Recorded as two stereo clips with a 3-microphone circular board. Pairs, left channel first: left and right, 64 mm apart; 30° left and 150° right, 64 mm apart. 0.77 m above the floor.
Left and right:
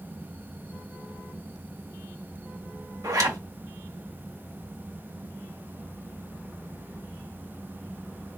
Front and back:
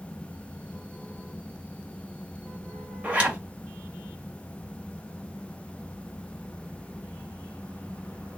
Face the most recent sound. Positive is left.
turn(degrees=-80)